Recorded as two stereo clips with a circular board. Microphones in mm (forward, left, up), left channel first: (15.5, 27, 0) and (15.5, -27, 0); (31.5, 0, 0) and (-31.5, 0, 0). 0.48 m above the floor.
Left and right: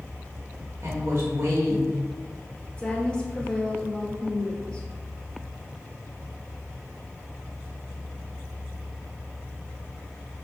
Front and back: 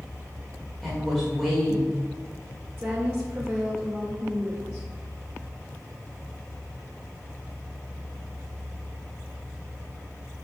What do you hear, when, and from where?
0.8 s a woman speaking: 90° right, 1.3 m
2.8 s a woman speaking: 130° left, 1.3 m